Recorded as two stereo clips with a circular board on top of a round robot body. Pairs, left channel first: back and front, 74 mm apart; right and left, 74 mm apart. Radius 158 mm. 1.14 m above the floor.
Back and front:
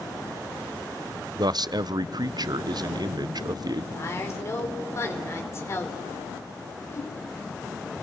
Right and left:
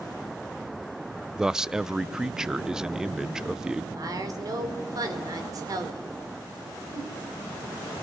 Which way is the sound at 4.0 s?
130° left.